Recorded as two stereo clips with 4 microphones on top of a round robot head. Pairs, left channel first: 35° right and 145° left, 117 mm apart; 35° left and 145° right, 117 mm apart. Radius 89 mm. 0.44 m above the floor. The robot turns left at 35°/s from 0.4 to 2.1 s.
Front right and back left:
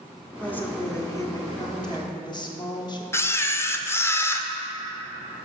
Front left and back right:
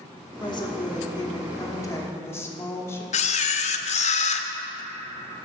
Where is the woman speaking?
40° left, 1.2 m; by 3.0 s 20° right, 1.2 m.